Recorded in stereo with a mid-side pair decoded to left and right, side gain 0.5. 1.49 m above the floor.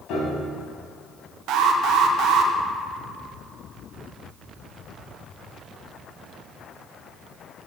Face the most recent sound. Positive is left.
turn(degrees=-70)